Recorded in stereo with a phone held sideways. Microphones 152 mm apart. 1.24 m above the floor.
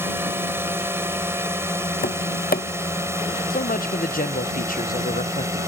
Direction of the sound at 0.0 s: 15° right (ahead or behind).